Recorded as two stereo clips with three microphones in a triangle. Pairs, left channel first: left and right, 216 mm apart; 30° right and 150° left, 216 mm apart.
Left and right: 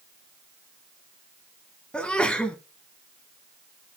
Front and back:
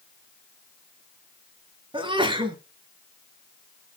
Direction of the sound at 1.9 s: 170° left.